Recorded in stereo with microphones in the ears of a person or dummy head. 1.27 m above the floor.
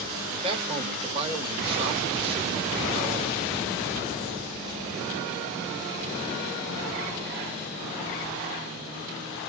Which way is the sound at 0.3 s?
30° right (ahead or behind).